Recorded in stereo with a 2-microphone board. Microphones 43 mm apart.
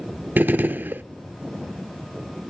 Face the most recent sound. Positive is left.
turn(degrees=-50)  # may be behind; listen again after turning